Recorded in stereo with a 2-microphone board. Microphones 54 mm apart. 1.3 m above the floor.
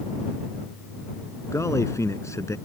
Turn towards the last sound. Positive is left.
turn(degrees=65)  # may be behind; listen again after turning